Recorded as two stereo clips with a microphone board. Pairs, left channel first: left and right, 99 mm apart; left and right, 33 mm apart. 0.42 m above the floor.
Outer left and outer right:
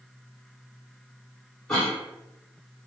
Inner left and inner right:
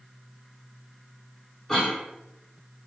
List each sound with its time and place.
1.7 s a cough: 5° left (ahead or behind), 1.1 m